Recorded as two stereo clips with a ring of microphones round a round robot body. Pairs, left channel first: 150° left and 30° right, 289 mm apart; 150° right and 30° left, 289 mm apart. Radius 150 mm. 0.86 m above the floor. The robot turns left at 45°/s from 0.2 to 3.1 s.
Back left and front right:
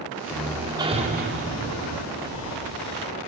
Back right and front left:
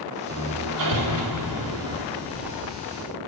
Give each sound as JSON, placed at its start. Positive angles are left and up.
{"t": 0.3, "sound": "hammering", "azimuth_deg": 70, "distance_m": 2.5}
{"t": 2.2, "sound": "breathing", "azimuth_deg": -30, "distance_m": 10.0}